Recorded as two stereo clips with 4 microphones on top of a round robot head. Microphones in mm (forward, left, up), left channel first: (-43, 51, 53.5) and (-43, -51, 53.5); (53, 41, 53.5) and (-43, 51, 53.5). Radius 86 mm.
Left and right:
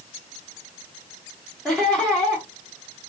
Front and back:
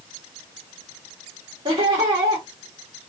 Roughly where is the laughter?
Behind.